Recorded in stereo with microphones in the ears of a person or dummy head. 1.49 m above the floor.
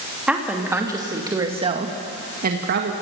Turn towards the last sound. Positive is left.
turn(degrees=-60)  # may be behind; listen again after turning